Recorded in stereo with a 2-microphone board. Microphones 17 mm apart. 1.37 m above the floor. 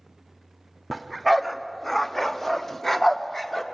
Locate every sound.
0.9 s a dog barking: 5° left (ahead or behind), 1.0 m; by 3.6 s 15° left (ahead or behind), 1.5 m